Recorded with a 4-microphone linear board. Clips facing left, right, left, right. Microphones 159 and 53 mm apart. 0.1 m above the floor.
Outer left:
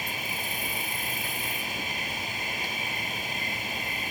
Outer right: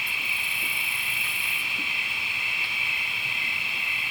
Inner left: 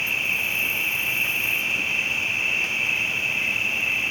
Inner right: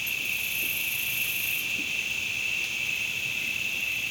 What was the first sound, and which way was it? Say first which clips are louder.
An insect: outer left 4 dB, inner left 7 dB; 45° left (ahead or behind).